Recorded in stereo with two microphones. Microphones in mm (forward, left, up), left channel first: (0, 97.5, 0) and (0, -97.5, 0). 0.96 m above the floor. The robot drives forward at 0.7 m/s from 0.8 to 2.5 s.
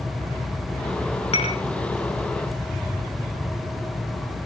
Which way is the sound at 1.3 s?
30° left (ahead or behind).